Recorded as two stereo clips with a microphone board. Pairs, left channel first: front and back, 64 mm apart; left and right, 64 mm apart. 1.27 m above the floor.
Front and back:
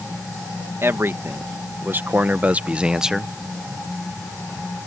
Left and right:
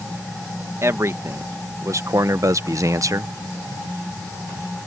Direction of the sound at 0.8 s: 130° right.